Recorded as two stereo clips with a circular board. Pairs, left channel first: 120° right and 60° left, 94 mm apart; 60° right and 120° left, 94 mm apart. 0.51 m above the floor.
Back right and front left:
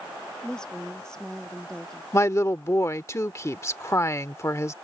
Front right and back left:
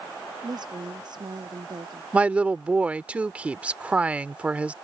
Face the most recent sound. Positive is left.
turn(degrees=-170)